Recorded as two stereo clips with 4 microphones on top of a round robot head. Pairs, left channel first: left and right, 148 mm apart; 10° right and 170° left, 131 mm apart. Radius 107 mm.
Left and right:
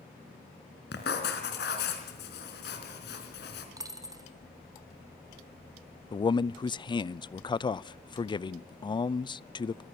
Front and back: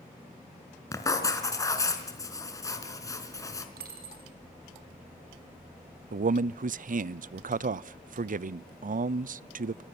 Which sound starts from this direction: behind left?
A man speaking, at 6.1 s.